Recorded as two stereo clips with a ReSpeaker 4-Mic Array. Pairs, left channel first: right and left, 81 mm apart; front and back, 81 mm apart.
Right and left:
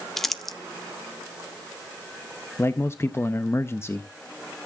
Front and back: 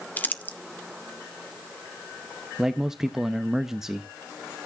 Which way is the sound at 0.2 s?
10° right.